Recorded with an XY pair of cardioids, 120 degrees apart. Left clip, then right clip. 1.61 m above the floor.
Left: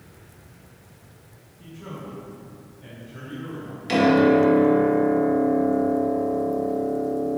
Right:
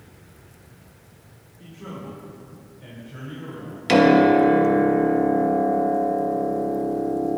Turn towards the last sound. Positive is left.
turn(degrees=-50)